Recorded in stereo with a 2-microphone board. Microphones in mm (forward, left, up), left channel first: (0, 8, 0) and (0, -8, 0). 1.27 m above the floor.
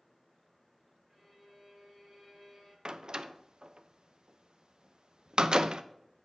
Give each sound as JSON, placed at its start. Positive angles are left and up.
{"t": 1.1, "sound": "a violin", "side_deg": 10, "distance_m": 6.0}
{"t": 2.9, "sound": "a door slam", "side_deg": -70, "distance_m": 0.6}